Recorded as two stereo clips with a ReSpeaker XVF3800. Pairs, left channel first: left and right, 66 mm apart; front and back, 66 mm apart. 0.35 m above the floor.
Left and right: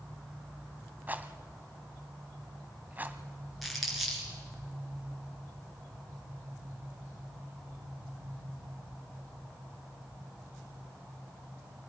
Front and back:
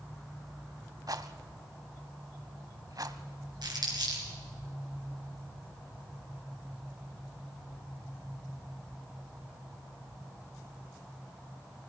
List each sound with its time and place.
1.1 s a rattle: 150° right, 0.9 m
3.6 s crumpling: straight behind, 5 m